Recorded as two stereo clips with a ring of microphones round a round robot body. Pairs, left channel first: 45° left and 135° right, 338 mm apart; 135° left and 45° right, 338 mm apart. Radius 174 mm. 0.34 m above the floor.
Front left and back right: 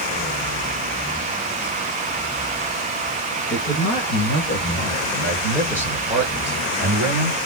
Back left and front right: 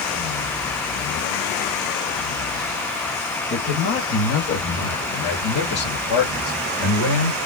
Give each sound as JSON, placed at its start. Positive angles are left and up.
{"t": 3.5, "sound": "a man speaking", "azimuth_deg": 95, "distance_m": 2.0}